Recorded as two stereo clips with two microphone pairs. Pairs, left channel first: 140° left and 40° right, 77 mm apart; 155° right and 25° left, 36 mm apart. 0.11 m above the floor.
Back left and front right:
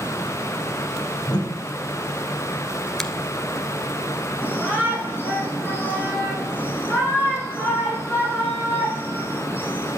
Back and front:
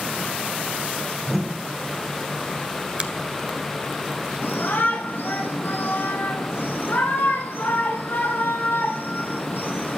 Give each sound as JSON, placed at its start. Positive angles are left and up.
{"t": 1.3, "sound": "a whoosh", "azimuth_deg": 110, "distance_m": 6.0}
{"t": 3.0, "sound": "a finger snap", "azimuth_deg": 60, "distance_m": 1.6}
{"t": 4.4, "sound": "a shout", "azimuth_deg": -160, "distance_m": 6.0}